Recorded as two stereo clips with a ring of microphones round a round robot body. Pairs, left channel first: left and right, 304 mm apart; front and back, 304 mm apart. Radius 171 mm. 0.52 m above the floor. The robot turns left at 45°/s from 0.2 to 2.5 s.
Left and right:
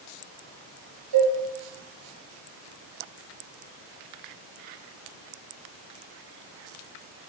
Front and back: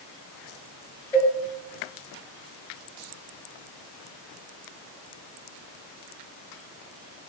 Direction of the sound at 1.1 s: 85° right.